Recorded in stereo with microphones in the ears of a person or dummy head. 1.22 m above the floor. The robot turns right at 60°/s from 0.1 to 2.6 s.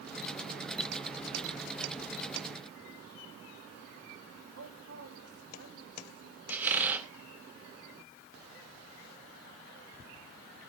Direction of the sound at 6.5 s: 10° right (ahead or behind).